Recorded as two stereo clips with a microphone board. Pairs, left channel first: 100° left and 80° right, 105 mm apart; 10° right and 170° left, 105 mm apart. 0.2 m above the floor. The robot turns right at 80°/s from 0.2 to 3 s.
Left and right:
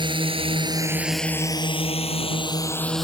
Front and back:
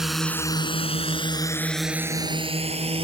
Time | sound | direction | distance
0.0 | a drone | 105° right | ?